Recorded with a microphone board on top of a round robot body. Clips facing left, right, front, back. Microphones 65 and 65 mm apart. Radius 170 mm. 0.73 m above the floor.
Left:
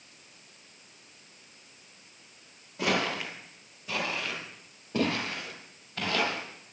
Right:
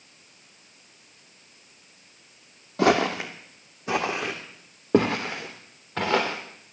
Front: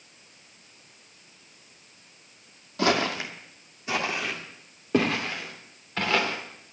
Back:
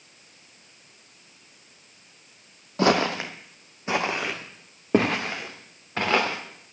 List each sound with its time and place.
2.8 s footsteps: 125° right, 1.2 m; by 6.4 s 120° right, 4 m